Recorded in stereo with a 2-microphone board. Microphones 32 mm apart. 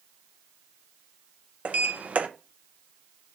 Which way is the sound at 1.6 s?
50° right (ahead or behind).